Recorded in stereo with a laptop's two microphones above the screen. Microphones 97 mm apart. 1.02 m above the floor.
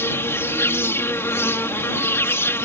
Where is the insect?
25° left (ahead or behind).